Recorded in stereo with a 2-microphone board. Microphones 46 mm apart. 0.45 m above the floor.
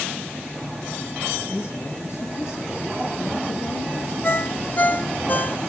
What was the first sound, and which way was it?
A man speaking, 75° left (ahead or behind).